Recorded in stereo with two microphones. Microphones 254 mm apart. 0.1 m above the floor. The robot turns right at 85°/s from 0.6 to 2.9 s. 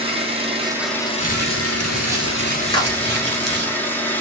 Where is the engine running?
25° right, 0.9 m; by 4.2 s 175° left, 0.9 m.